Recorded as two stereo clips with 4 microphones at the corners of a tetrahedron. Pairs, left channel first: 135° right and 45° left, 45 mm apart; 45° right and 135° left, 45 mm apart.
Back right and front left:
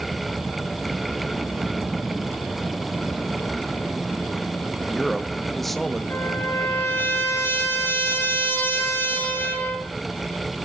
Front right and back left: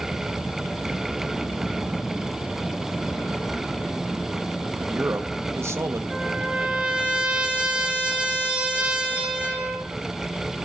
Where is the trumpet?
160° right, 5.5 m.